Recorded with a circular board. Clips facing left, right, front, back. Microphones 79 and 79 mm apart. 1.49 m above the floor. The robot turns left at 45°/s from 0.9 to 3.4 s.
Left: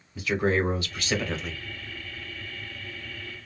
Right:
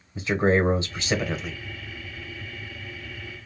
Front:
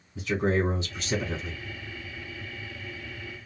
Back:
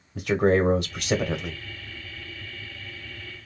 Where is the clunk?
I don't hear a clunk.